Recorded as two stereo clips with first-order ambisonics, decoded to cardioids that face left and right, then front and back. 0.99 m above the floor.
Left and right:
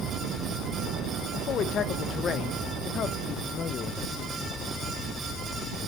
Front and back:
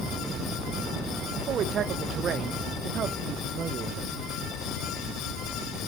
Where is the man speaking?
135° left, 0.6 m.